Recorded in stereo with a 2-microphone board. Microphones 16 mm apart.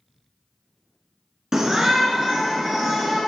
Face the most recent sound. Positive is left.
turn(degrees=-45)  # may be behind; listen again after turning